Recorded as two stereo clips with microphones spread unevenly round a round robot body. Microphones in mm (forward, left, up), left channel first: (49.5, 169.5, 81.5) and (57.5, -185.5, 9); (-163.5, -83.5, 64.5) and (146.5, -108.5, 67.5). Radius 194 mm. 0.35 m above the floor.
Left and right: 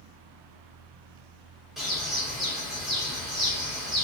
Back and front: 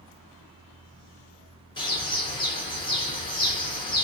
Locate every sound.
1.8 s a bird: 140° right, 1.3 m